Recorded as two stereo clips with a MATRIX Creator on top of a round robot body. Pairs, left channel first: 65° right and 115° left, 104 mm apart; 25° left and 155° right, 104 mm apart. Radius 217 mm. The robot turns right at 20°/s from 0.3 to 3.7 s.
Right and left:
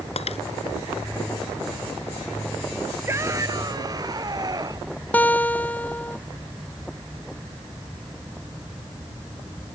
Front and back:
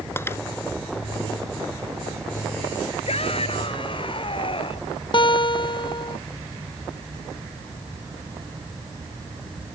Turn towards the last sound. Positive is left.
turn(degrees=5)